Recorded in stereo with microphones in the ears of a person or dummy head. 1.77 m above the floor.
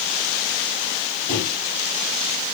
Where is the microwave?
15° left (ahead or behind), 1.3 m.